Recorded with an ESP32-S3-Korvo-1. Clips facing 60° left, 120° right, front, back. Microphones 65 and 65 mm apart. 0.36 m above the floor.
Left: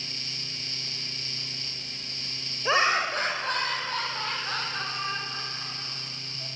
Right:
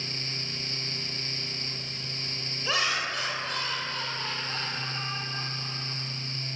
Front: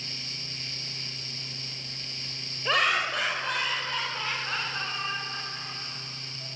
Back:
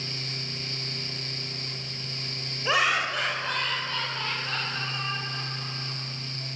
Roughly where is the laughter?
Left.